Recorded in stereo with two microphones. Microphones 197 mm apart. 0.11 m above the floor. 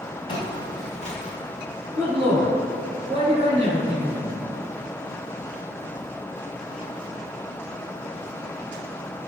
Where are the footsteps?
25° left (ahead or behind), 1.5 m; by 1.4 s 50° left (ahead or behind), 0.7 m.